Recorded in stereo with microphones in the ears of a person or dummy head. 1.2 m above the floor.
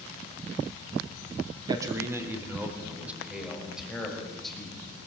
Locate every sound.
1.7 s a man speaking: 25° right (ahead or behind), 2.5 m; by 5.1 s 5° left (ahead or behind), 6.5 m